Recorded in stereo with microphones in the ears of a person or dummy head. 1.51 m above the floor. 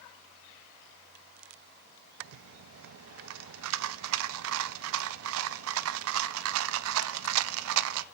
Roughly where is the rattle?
Right.